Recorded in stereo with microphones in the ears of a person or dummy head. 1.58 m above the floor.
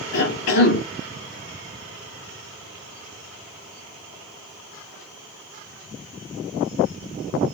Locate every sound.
0.1 s a cough: 55° left (ahead or behind), 1.5 m